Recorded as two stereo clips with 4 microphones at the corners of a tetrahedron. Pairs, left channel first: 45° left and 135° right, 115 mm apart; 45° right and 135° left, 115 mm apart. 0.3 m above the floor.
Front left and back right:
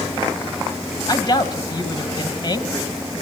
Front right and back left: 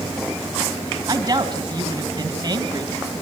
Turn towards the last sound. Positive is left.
turn(degrees=85)